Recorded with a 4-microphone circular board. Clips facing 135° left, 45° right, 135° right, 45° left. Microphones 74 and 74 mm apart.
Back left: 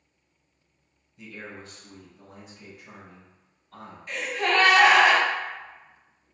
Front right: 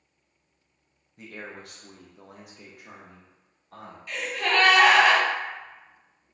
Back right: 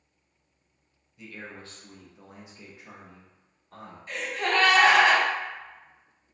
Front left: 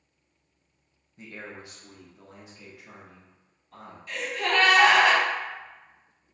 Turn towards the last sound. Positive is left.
turn(degrees=-175)